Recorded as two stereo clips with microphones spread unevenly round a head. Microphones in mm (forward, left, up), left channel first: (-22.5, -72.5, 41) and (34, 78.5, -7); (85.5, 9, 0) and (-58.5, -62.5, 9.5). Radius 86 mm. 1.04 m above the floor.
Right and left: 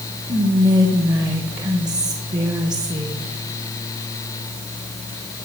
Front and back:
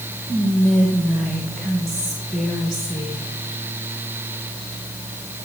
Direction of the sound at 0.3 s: 115° left.